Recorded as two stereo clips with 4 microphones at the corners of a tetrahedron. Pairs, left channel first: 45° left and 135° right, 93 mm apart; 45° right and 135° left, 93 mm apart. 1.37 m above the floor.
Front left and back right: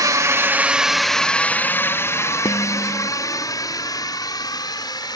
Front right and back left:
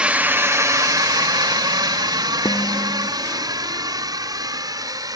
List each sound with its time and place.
0.0 s a drone: 155° right; by 5.2 s 90° left
2.5 s dishes clattering: 5° left